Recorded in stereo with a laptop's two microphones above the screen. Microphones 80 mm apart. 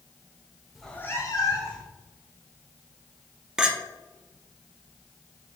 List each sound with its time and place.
0.8 s a cat meowing: 5° right (ahead or behind), 0.7 m; by 1.9 s 60° left (ahead or behind), 1.6 m
3.6 s a clink: 10° right (ahead or behind), 0.7 m